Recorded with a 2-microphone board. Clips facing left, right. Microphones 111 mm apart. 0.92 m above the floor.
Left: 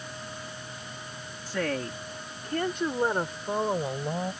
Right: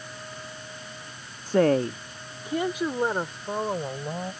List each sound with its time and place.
1.5 s a woman speaking: 50° right (ahead or behind); by 4.3 s 5° left (ahead or behind)